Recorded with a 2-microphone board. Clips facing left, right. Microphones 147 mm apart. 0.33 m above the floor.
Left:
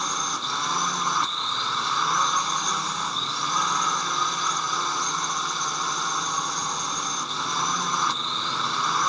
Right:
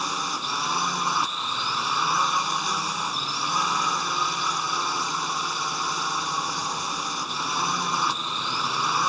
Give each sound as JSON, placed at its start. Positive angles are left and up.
{"t": 0.0, "sound": "a drone", "side_deg": -5}